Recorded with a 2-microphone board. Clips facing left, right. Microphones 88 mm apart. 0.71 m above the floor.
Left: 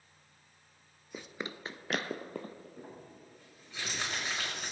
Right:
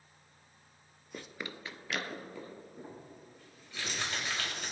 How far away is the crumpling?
About 4 m.